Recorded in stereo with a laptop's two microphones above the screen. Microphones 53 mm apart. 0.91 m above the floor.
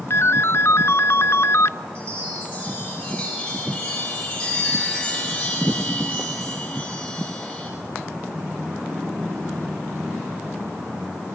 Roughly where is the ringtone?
Left.